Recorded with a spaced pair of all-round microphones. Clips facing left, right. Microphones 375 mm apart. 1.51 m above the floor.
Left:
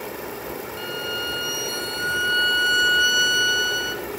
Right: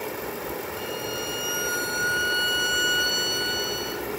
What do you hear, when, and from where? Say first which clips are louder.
0.8 s a violin: even; 60° right (ahead or behind), 1.2 m